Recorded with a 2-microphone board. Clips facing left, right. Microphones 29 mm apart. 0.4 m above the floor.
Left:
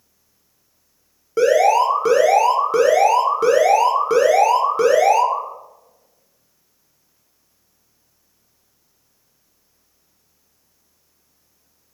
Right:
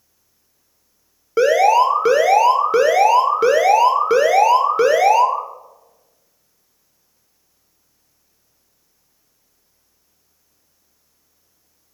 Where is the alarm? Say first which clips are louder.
Right 1 dB; 30° right (ahead or behind), 1.0 m.